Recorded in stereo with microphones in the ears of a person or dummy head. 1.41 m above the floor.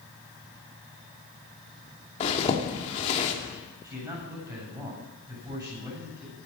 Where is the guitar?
No guitar in this recording.